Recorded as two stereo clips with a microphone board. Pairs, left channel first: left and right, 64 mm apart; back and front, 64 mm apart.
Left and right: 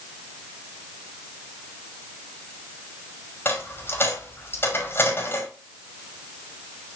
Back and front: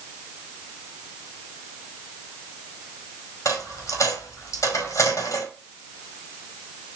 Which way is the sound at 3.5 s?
145° left.